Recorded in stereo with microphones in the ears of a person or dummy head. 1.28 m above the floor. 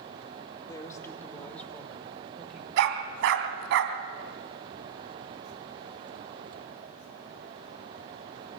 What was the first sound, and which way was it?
A woman speaking, 20° left (ahead or behind).